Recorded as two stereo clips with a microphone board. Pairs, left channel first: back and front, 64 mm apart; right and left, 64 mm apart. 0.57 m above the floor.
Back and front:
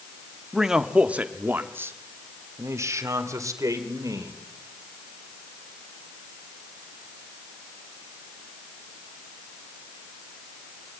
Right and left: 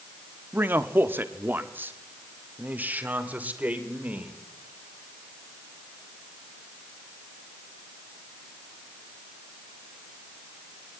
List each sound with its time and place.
0.5 s a man speaking: 85° left, 1.0 m; by 4.3 s 25° left, 2.5 m